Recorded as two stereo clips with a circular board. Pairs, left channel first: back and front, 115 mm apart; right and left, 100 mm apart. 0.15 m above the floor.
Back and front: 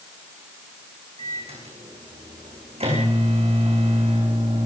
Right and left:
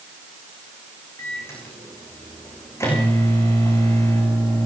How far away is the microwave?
About 9 m.